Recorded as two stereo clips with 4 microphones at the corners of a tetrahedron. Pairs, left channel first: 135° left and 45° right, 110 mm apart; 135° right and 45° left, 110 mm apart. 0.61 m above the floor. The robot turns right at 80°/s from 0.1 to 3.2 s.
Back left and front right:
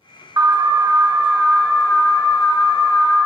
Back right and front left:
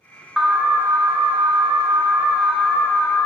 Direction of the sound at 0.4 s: 40° right.